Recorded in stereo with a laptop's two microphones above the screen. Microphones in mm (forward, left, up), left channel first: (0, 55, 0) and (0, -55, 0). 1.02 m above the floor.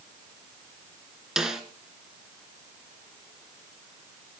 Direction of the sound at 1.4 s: 5° right (ahead or behind).